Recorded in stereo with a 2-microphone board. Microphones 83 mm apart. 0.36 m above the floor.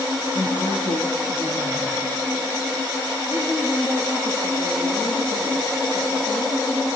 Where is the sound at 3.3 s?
55° left (ahead or behind), 7 m.